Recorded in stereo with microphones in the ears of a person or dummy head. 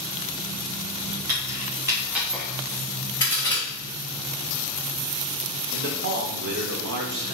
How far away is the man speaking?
About 0.9 m.